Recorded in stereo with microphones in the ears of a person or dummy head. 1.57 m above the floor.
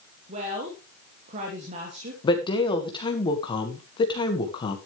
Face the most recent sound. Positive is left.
turn(degrees=20)  # may be behind; listen again after turning